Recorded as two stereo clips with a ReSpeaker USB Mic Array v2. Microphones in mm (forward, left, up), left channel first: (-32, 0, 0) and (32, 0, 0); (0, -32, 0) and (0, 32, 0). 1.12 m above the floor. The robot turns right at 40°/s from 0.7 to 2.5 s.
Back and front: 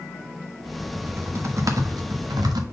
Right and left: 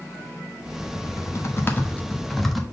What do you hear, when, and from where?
0.9 s typing on a keyboard: 60° right, 1.1 m; by 2.6 s straight ahead, 1.1 m